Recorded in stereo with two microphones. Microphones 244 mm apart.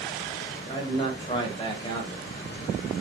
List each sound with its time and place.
0.7 s a man speaking: 20° left (ahead or behind), 1.3 m